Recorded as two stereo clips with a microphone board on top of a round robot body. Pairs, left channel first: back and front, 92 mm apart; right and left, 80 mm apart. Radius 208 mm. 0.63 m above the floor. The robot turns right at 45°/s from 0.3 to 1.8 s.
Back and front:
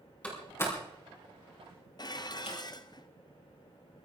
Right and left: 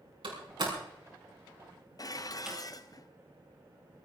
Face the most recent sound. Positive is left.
turn(degrees=-135)